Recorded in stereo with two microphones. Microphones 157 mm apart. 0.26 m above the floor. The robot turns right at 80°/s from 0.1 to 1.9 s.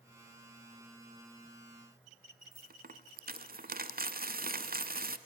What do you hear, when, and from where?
2.5 s a dropped coin: 65° right (ahead or behind), 0.5 m